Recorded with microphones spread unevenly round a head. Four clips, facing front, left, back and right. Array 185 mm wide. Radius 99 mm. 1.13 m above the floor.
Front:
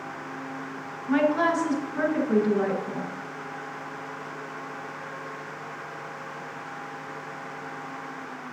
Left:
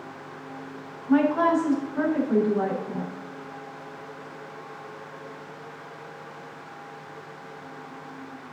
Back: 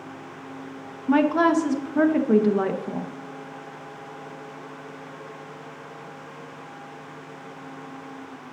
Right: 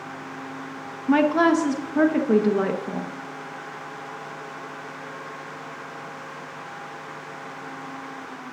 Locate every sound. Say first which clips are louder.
1.1 s a woman speaking: right 2 dB, back 3 dB; 110° right, 1.0 m